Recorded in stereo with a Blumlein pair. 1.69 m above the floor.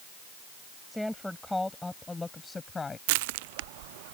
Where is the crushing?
50° right.